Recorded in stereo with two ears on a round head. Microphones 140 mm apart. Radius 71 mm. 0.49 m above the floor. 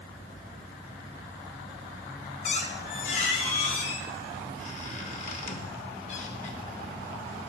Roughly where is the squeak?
Left.